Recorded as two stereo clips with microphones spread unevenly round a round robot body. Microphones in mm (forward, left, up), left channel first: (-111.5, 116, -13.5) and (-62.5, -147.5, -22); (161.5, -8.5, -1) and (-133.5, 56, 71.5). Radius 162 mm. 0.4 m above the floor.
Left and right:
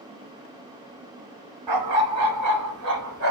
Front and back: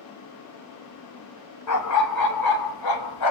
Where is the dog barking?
55° right, 1.8 m; by 3.3 s 15° right, 1.8 m.